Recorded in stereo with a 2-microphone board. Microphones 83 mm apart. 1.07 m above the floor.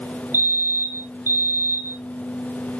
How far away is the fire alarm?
About 1.8 m.